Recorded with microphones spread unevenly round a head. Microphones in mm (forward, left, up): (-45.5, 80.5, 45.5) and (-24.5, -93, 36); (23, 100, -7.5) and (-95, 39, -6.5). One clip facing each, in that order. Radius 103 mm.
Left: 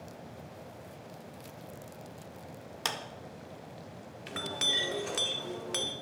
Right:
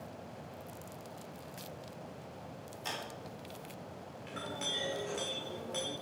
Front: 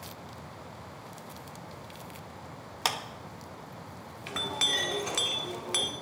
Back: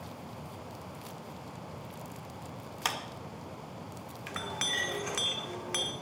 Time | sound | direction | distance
2.9 | a clap | 85° left | 1.7 m
4.3 | a clink | 85° left | 1.8 m